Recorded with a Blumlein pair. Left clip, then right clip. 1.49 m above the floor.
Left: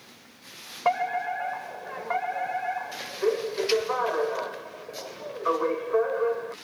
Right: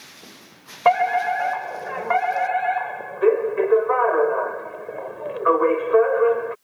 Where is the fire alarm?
70° right.